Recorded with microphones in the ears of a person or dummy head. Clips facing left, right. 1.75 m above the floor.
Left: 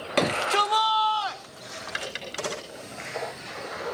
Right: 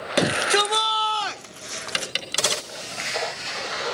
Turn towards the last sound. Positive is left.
turn(degrees=-60)  # may be behind; listen again after turning